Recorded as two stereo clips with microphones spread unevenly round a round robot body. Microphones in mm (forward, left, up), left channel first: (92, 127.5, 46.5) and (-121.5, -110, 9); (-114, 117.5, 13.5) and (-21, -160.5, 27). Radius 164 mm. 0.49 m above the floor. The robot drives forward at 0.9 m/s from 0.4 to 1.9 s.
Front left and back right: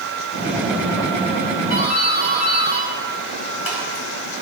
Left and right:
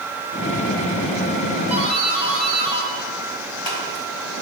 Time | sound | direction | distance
1.7 | a doorbell | 90° left | 4.5 m